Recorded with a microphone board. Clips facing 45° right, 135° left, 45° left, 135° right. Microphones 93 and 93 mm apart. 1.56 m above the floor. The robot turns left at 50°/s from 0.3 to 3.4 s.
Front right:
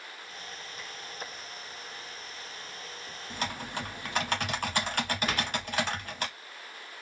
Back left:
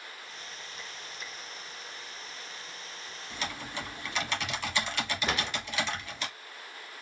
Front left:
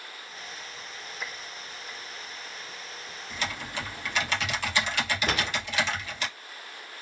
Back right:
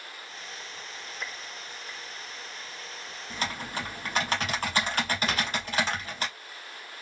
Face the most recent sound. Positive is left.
turn(degrees=75)